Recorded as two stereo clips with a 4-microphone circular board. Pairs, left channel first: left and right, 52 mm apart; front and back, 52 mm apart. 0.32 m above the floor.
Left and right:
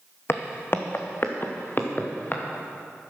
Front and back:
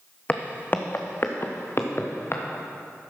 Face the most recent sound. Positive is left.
turn(degrees=40)